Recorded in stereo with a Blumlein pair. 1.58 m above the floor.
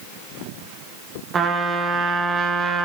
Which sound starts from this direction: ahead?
A trumpet, at 1.3 s.